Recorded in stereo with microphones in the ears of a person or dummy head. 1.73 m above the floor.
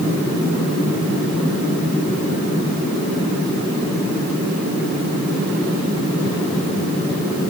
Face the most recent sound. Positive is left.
No sound to turn to.